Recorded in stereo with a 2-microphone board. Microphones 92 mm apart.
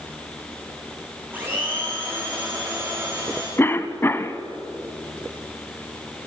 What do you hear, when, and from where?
1.3 s a blender: 20° right (ahead or behind), 5 m
3.6 s a cough: 25° left (ahead or behind), 1.0 m